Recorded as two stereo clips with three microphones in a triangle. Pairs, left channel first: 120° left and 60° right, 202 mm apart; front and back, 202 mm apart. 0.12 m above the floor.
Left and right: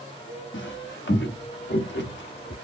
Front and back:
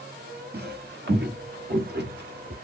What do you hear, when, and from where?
0.5 s footsteps: 140° left, 1.1 m; by 2.5 s 145° left, 2.5 m